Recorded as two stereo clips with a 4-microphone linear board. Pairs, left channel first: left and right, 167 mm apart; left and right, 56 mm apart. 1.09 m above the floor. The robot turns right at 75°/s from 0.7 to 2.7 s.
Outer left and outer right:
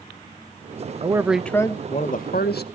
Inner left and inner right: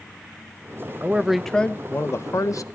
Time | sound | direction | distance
1.0 | a man speaking | 30° right | 0.7 m